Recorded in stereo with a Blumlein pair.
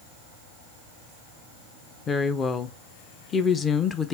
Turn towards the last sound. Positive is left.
turn(degrees=20)